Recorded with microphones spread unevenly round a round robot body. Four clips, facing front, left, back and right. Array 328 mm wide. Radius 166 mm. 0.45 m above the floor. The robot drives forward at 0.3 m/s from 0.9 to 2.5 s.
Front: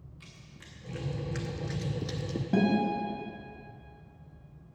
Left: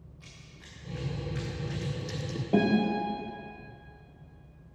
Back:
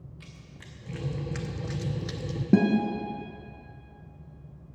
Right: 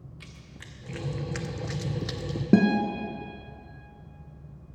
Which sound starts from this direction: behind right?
A guitar, at 2.5 s.